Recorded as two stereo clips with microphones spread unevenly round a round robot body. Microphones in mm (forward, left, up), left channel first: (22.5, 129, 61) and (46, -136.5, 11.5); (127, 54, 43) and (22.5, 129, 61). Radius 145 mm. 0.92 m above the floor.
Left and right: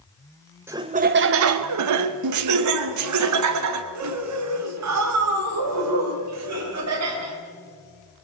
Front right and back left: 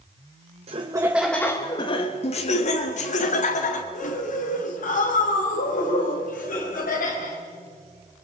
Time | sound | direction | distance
0.7 | laughter | 160° right | 0.5 m